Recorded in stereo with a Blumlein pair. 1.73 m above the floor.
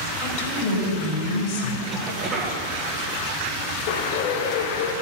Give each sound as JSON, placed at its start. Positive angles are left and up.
{"t": 0.2, "sound": "a woman speaking", "azimuth_deg": 45, "distance_m": 4.5}
{"t": 1.9, "sound": "a cough", "azimuth_deg": -20, "distance_m": 2.0}
{"t": 3.9, "sound": "a bird", "azimuth_deg": 45, "distance_m": 1.1}